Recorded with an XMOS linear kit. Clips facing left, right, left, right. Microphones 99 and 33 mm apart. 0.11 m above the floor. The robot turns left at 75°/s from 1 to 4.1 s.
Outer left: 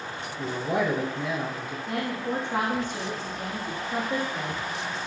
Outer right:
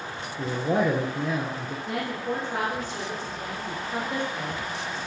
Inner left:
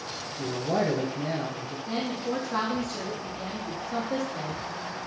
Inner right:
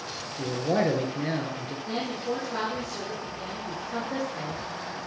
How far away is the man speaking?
About 1.7 m.